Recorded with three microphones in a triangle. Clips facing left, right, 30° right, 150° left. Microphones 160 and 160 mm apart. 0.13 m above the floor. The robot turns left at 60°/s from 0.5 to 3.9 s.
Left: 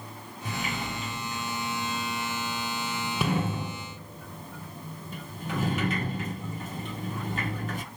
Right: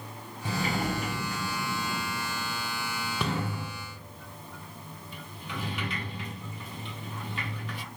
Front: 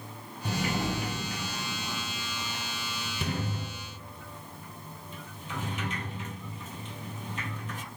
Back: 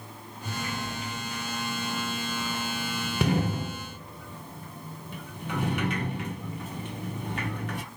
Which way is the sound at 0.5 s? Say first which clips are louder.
Right 4 dB, front 4 dB; 25° right.